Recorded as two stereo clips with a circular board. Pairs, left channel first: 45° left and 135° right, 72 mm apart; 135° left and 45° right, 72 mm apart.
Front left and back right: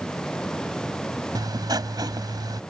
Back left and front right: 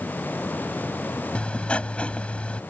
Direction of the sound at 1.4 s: 150° right.